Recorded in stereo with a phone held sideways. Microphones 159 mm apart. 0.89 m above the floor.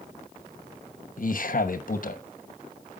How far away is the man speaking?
About 1.0 m.